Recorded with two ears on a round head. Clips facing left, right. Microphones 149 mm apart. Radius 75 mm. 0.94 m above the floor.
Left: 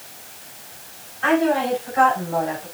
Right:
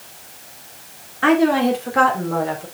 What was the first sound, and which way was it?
A woman speaking, 70° right (ahead or behind).